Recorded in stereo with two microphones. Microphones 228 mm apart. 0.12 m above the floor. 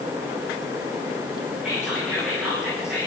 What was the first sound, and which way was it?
Whispering, 5° right (ahead or behind).